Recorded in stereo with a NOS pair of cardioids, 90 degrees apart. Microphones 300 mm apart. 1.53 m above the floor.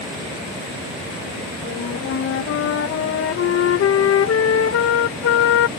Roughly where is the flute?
Ahead left.